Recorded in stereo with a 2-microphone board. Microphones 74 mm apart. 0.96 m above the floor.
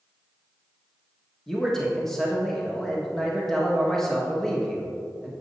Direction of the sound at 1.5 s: 5° left (ahead or behind).